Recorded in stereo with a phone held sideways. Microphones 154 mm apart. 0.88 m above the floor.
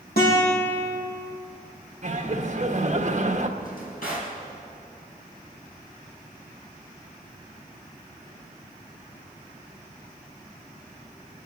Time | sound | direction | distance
0.2 | a guitar | 75° left (ahead or behind) | 6 m
2.0 | laughter | 50° right (ahead or behind) | 1.5 m
3.6 | a drawer | 70° left (ahead or behind) | 4.5 m